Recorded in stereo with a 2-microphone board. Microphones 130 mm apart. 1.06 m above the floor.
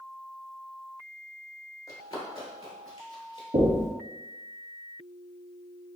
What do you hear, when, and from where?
1.9 s running footsteps: 25° left (ahead or behind), 1.1 m; by 3.4 s 40° left (ahead or behind), 1.5 m
3.5 s knocking: 75° right (ahead or behind), 0.9 m